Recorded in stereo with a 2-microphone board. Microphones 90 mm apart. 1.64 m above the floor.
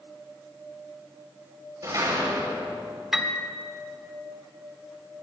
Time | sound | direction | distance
1.8 | a door slam | 40° right (ahead or behind) | 4.5 m
3.1 | a piano | 5° right (ahead or behind) | 1.2 m